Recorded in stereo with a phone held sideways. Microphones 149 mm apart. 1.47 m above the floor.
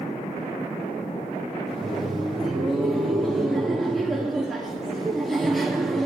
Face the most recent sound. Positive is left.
turn(degrees=0)  # may be behind; listen again after turning